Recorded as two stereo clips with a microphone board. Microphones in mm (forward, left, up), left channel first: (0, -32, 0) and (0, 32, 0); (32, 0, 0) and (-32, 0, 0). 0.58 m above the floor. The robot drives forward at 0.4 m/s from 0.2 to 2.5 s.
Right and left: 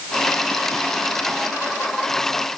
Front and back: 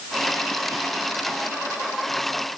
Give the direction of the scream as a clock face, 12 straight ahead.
I don't hear a scream.